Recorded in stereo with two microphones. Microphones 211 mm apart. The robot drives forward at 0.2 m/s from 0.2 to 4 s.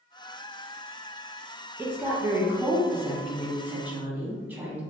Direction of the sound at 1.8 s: 10° right (ahead or behind).